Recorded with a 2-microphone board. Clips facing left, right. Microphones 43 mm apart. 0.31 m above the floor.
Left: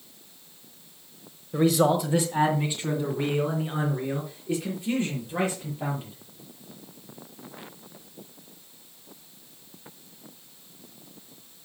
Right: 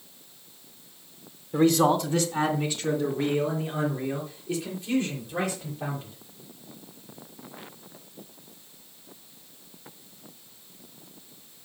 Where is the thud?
No thud in this recording.